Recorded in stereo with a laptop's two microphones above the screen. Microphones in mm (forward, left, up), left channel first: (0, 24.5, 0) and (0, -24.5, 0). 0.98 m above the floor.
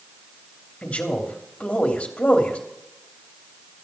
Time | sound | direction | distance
0.8 | a man speaking | 25° left (ahead or behind) | 2.5 m